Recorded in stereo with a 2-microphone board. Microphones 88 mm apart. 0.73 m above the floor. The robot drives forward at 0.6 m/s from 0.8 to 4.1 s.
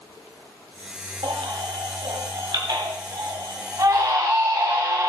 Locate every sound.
1.2 s a baby crying: 75° right (ahead or behind), 1.9 m; by 5.1 s 40° right (ahead or behind), 3 m